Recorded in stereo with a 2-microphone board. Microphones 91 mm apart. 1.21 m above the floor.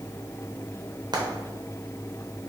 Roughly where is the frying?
Right.